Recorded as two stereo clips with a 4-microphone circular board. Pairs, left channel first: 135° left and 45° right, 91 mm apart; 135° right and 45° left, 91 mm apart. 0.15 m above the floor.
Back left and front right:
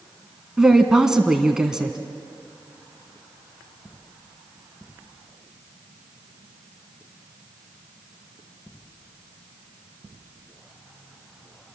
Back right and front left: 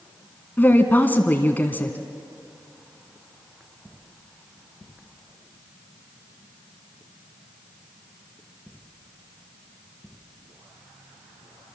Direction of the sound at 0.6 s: 115° right.